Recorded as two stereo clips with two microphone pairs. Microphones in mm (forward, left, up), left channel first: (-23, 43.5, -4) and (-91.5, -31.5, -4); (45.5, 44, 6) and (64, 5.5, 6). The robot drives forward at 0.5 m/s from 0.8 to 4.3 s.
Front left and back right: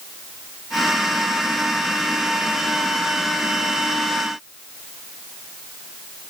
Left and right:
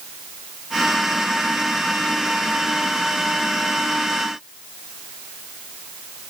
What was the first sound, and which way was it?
Only background noise.